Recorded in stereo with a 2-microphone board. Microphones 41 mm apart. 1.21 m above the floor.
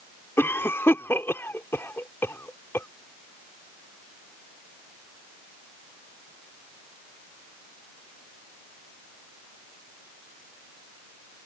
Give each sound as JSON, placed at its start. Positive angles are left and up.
{"t": 0.4, "sound": "a cough", "side_deg": 85}